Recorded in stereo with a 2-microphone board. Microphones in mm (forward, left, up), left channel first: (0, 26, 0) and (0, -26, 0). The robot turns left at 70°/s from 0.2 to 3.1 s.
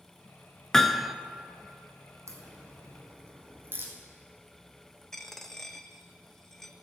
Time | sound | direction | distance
0.7 | hammering | 10° left (ahead or behind) | 0.5 m
2.3 | a crack | 70° right (ahead or behind) | 2.5 m
5.1 | a dropped coin | 5° left (ahead or behind) | 0.7 m